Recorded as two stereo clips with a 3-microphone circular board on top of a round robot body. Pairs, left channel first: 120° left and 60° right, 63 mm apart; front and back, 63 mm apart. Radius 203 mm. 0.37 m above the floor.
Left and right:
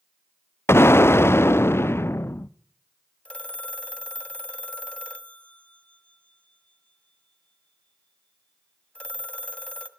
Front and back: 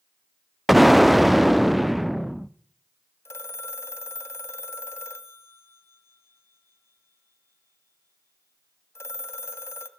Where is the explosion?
95° left, 1.0 m.